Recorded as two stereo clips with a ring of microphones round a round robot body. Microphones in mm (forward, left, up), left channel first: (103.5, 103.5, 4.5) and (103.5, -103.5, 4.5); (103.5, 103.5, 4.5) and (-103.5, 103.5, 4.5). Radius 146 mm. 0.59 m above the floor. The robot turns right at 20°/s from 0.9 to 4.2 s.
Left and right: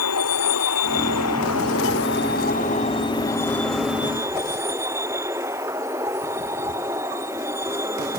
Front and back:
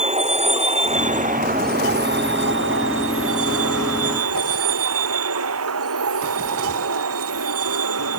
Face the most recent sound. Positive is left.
turn(degrees=-170)